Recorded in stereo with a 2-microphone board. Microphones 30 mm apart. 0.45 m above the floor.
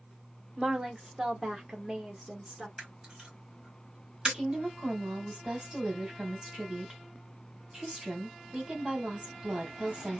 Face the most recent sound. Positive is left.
turn(degrees=-25)  # may be behind; listen again after turning